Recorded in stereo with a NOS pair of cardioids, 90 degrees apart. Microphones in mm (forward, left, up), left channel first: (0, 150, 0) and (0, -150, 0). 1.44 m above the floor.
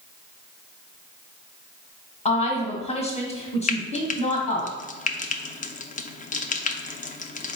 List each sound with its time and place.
2.2 s a woman speaking: 20° left, 1.2 m
3.7 s frying: 25° left, 0.5 m